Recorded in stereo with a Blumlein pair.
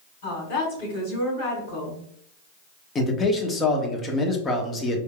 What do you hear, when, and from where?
0.2 s a woman speaking: 55° left, 2 m
3.0 s a man speaking: 20° left, 1.0 m